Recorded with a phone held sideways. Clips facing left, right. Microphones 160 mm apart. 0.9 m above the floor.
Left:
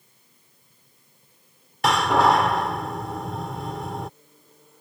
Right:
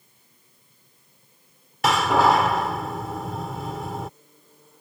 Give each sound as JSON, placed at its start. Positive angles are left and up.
{"t": 1.8, "sound": "a door slam", "side_deg": 0}